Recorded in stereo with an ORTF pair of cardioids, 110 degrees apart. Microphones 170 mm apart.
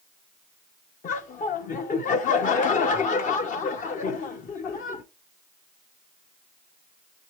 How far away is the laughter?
About 1.7 m.